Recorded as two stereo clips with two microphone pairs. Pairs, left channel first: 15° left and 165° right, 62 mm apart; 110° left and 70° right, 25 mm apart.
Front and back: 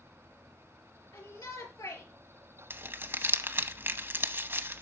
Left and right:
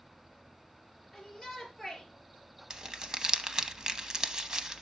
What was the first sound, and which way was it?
A shout, 10° left.